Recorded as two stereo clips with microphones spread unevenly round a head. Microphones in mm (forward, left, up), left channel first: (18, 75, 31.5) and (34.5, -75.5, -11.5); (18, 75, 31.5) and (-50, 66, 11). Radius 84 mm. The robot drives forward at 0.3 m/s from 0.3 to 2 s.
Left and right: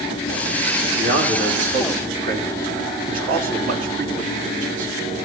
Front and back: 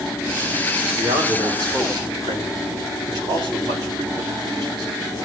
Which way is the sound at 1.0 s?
125° right.